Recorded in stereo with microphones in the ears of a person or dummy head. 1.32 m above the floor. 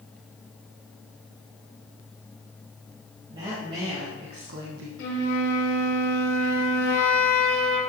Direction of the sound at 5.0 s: 65° left (ahead or behind).